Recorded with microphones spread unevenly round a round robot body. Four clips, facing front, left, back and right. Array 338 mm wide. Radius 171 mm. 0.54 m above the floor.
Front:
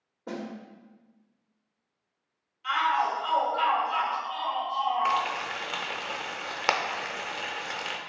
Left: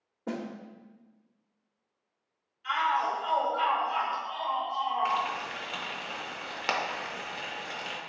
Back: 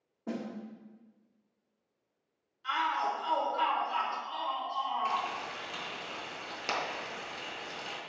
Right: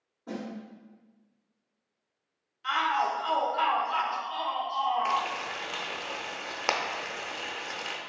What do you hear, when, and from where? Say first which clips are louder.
0.3 s a snare drum: left 2 dB, front 1 dB; 85° left, 0.7 m
2.6 s a shout: even, front 5 dB; 105° right, 0.9 m
5.0 s frying: right 1 dB, front 6 dB; 25° right, 0.7 m